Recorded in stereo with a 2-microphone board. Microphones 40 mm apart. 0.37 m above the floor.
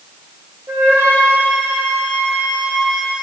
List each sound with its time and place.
0.7 s a flute: 85° right, 7 m